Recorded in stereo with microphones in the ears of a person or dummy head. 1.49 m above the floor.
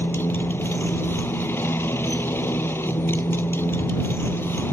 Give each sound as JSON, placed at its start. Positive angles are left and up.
{"t": 0.0, "sound": "a motorcycle", "side_deg": 15}